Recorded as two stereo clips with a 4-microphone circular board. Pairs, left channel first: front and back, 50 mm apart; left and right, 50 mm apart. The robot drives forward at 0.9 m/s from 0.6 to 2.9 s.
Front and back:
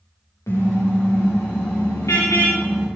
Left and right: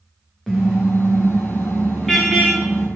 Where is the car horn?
Straight ahead, 8 m; by 2.9 s 5° left, 6 m.